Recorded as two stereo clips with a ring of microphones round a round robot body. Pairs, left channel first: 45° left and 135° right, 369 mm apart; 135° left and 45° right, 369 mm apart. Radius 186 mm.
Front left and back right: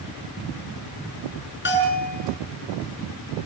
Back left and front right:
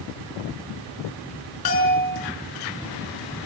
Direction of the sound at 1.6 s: 105° left.